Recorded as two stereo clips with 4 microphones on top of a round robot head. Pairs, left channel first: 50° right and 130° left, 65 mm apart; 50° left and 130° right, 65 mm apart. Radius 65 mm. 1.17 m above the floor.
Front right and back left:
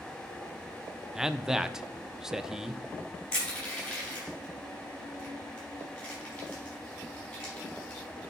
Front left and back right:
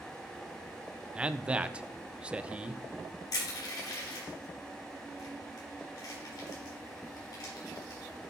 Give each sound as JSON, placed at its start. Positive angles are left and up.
{"t": 1.1, "sound": "a man speaking", "azimuth_deg": -165, "distance_m": 0.6}
{"t": 3.3, "sound": "crushing", "azimuth_deg": 30, "distance_m": 4.5}